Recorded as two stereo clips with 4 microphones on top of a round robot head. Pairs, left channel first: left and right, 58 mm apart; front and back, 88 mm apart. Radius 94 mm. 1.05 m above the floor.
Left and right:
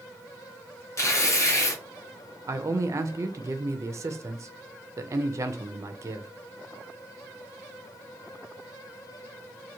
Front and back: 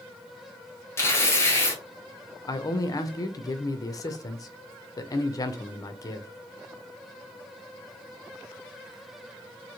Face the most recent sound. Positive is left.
turn(degrees=-50)